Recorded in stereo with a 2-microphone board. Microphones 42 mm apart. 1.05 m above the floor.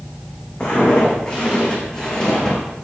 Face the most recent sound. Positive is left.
turn(degrees=10)  # may be behind; listen again after turning